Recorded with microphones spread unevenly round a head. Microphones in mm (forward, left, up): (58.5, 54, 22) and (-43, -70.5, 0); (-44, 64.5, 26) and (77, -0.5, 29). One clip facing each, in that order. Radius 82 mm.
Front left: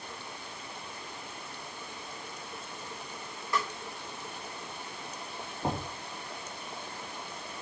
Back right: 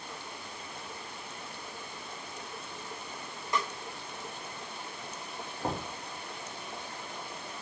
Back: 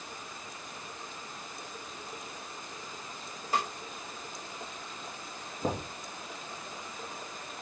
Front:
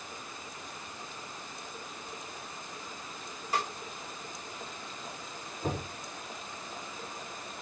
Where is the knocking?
140° left, 2.5 m.